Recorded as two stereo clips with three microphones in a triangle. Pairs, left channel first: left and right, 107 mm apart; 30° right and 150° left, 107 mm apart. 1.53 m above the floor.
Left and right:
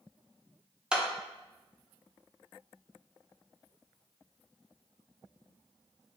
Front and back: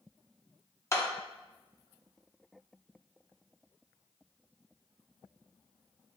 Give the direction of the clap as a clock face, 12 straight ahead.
1 o'clock.